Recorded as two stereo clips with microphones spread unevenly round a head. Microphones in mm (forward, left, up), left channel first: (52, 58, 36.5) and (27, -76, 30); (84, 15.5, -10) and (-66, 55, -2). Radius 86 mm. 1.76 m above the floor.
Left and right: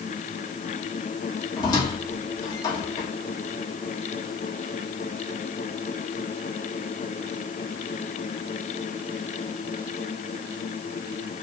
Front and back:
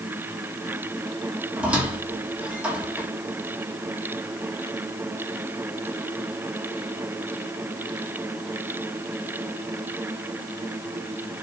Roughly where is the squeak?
Left.